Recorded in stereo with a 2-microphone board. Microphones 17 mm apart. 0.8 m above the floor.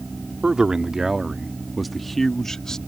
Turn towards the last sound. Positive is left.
turn(degrees=30)  # may be behind; listen again after turning